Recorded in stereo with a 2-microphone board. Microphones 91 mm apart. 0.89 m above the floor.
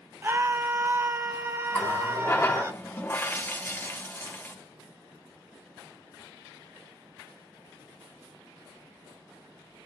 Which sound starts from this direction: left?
A running tap, at 1.7 s.